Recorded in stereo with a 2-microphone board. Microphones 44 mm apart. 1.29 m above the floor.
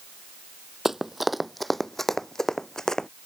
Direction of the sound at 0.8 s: 10° right (ahead or behind).